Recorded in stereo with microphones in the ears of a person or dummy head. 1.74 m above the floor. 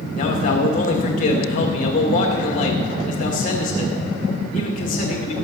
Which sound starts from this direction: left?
A man speaking, at 0.1 s.